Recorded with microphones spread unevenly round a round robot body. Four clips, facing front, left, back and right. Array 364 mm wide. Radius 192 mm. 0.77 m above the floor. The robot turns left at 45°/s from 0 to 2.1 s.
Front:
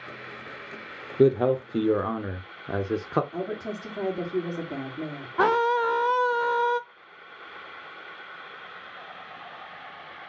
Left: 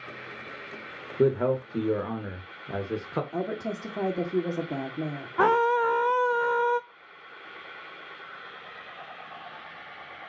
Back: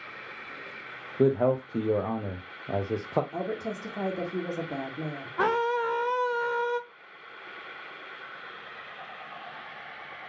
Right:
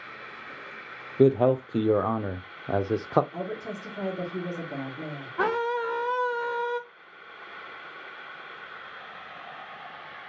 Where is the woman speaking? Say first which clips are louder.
Left 3 dB, front 1 dB; 95° left, 1.8 m.